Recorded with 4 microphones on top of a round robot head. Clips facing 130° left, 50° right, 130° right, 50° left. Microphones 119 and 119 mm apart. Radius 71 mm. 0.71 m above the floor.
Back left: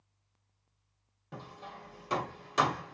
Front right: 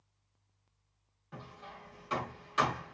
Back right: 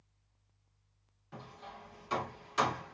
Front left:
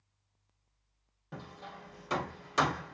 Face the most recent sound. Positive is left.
turn(degrees=85)